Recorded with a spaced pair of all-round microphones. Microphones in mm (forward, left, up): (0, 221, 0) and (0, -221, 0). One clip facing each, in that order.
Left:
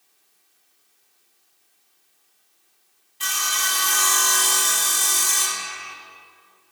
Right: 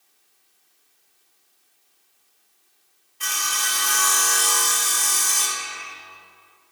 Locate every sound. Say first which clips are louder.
3.2 s sawing: left 1 dB; 55° left (ahead or behind), 0.7 m